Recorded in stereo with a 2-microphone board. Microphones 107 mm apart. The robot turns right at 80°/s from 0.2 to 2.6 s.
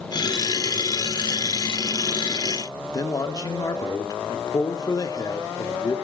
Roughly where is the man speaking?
Left.